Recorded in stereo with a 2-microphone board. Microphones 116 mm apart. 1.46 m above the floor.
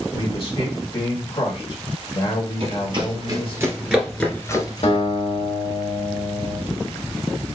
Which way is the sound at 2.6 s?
55° right (ahead or behind).